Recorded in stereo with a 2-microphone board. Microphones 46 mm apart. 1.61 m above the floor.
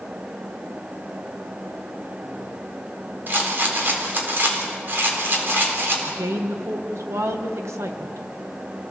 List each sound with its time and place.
3.3 s a rattle: 45° right (ahead or behind), 4 m
6.1 s a woman speaking: 85° right, 1.7 m